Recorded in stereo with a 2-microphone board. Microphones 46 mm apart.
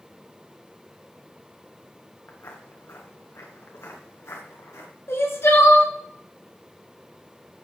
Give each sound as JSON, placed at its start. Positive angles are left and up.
{"t": 2.3, "sound": "footsteps", "side_deg": 80, "distance_m": 3.0}
{"t": 5.1, "sound": "crying", "side_deg": 65, "distance_m": 2.5}